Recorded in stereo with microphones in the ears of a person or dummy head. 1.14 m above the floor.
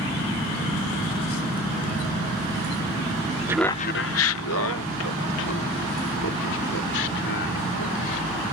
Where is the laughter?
15° right (ahead or behind); by 8.5 s 70° left (ahead or behind).